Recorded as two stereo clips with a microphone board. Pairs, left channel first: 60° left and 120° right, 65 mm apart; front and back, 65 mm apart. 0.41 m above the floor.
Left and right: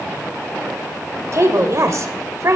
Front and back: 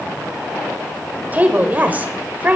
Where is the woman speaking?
125° right, 1.2 m.